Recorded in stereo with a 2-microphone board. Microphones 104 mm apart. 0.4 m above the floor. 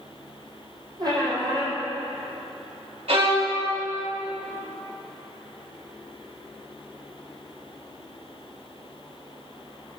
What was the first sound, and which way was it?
A squeak, 40° right (ahead or behind).